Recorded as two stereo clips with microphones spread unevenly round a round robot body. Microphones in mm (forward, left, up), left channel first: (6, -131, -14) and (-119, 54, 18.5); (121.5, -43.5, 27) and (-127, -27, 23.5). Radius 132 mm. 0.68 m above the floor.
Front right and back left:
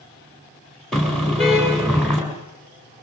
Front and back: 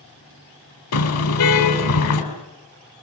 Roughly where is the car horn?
Ahead left.